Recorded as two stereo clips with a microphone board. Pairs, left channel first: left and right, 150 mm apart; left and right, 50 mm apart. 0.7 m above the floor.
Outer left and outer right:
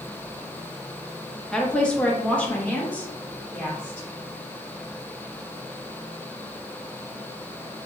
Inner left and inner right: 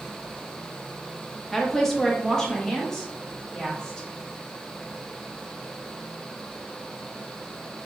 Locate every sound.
1.5 s a woman speaking: 5° left (ahead or behind), 0.5 m; by 4.1 s 10° left (ahead or behind), 1.7 m